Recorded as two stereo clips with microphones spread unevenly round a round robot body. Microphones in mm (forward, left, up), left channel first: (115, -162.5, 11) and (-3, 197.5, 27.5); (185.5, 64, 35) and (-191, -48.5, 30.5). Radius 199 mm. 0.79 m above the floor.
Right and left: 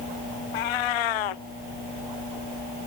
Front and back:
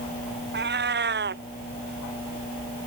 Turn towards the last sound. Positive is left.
turn(degrees=-100)